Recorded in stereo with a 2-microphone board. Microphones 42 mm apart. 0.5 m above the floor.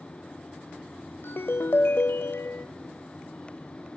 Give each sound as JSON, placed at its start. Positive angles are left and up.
{"t": 1.2, "sound": "a ringtone", "side_deg": 55, "distance_m": 0.9}